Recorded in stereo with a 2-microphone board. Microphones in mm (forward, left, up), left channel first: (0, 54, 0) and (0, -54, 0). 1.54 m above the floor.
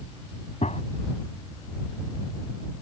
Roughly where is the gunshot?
Left.